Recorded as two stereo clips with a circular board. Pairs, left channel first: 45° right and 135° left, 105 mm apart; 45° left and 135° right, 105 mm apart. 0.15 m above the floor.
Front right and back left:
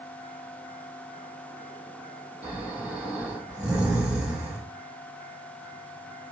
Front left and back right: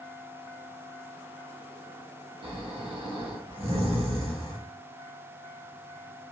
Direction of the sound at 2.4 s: 150° right.